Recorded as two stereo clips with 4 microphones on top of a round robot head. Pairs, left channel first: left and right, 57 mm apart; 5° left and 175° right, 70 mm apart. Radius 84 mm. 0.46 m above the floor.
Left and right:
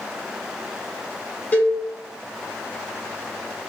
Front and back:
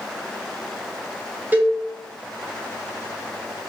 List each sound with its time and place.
1.5 s a cowbell: 130° left, 0.7 m